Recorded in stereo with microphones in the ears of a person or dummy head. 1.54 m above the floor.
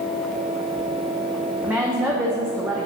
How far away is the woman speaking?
About 0.6 m.